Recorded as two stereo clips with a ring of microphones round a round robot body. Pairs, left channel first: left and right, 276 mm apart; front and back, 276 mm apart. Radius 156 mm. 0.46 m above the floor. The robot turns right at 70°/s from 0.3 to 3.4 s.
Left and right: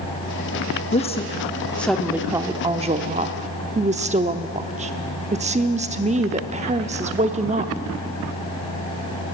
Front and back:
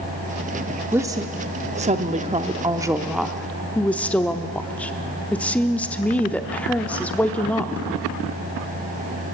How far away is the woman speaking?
About 0.7 m.